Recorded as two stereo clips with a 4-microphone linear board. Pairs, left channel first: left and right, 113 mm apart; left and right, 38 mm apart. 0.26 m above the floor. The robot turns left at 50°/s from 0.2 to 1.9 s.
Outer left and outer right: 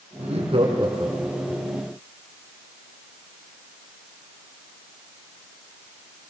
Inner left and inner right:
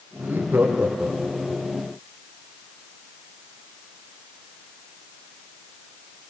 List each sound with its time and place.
0.2 s laughter: 105° right, 7 m; by 1.6 s 175° right, 7 m